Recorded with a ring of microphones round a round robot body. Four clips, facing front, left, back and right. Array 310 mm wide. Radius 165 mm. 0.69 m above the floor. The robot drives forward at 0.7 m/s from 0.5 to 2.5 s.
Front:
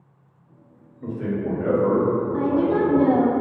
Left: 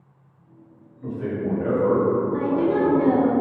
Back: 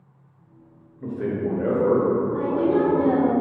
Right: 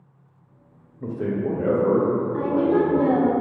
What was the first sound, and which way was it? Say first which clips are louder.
A man speaking: right 2 dB, back 1 dB; 100° right.